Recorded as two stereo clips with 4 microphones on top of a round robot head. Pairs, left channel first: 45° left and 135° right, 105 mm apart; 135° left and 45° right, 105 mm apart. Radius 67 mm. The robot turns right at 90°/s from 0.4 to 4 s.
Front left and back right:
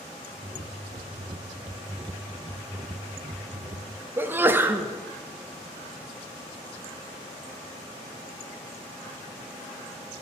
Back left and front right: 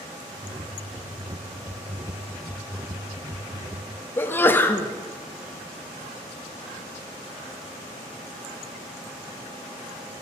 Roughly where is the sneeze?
Behind.